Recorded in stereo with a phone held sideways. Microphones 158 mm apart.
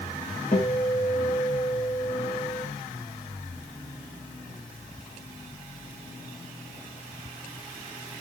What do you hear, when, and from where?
0.5 s a guitar: 65° left (ahead or behind), 4 m